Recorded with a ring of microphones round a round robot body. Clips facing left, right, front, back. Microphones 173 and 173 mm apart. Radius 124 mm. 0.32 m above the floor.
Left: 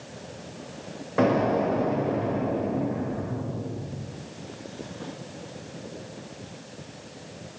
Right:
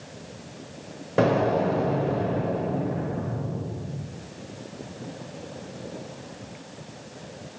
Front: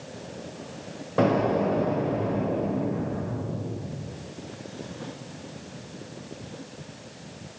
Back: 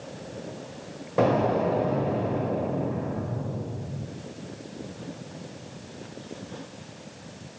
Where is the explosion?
100° right, 1.3 m.